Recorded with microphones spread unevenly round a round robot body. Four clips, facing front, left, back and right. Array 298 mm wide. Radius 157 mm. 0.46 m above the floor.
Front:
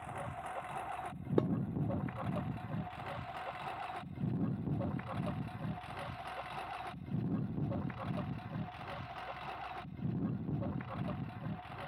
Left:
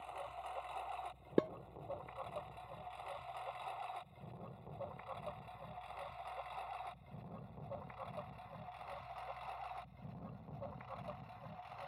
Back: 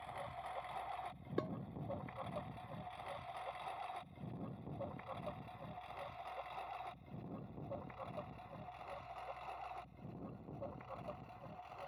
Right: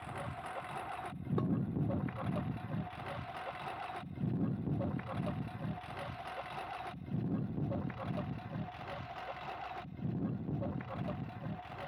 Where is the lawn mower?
45° right; by 11.9 s 30° right.